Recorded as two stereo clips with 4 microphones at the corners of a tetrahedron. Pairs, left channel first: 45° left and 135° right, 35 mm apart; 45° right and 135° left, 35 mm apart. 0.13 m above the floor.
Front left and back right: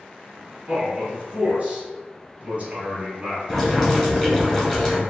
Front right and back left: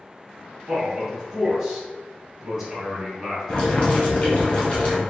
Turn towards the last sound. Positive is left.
turn(degrees=-35)